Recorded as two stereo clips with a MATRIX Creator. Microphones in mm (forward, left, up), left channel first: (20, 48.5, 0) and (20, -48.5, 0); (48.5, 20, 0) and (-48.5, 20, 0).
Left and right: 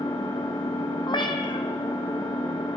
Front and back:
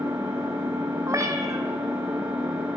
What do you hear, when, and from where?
0.0 s an engine running: 125° left, 3.5 m
1.1 s a cat meowing: 125° left, 0.8 m